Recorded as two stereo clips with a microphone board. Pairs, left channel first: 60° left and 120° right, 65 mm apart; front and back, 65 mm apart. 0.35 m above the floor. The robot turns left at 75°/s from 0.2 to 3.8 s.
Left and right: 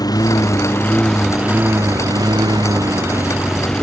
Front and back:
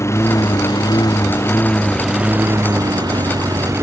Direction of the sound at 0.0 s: 45° left.